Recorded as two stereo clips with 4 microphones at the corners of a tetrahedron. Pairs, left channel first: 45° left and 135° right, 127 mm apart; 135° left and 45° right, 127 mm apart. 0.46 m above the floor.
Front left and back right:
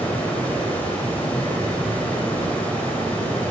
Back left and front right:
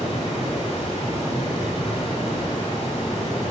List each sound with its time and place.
0.0 s running water: 120° left, 1.7 m